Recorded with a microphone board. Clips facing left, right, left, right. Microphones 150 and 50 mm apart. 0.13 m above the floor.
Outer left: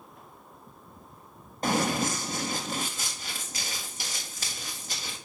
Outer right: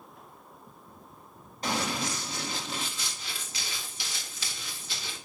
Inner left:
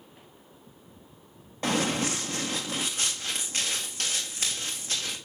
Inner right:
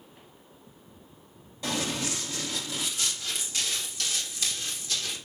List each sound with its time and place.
1.6 s running footsteps: 50° left (ahead or behind), 1.6 m; by 5.2 s 45° left (ahead or behind), 3.5 m